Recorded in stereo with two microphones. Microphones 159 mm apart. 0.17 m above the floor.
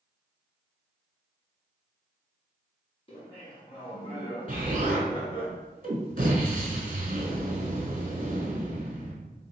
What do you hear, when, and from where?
3.1 s laughter: 35° left (ahead or behind), 1.2 m
4.5 s an explosion: 60° right (ahead or behind), 0.9 m